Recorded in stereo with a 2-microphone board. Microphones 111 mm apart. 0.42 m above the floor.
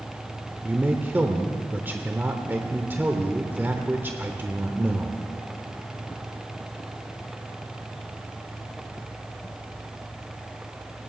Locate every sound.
0.6 s a man speaking: 20° right (ahead or behind), 0.9 m